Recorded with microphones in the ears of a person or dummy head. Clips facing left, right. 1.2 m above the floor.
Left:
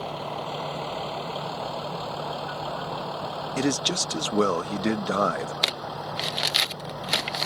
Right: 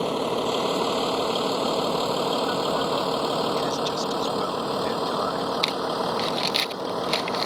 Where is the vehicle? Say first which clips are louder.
Right 8 dB; 75° right (ahead or behind); by 7.5 s 90° right.